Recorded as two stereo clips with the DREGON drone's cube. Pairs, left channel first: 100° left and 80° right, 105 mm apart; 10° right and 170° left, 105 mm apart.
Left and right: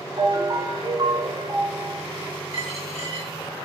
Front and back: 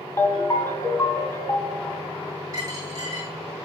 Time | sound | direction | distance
0.2 | a ringtone | 60° right | 1.2 m
2.5 | a dropped coin | 110° left | 3.5 m